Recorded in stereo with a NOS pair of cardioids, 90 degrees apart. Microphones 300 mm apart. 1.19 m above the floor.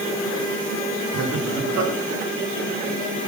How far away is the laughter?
About 2.5 m.